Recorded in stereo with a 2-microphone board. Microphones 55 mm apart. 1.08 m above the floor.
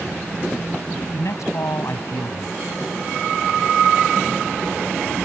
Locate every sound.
1.1 s a man speaking: 70° left (ahead or behind)